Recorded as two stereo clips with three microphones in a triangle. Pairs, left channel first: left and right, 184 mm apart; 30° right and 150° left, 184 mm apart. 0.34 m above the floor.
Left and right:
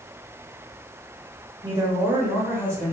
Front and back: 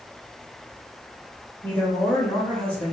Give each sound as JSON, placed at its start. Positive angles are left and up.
{"t": 1.6, "sound": "a woman speaking", "azimuth_deg": -90, "distance_m": 1.0}